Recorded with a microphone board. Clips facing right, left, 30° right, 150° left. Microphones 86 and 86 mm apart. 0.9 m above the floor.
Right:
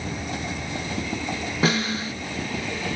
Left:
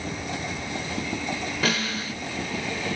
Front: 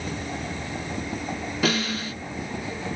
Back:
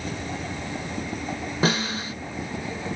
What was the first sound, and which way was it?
A snare drum, 155° right.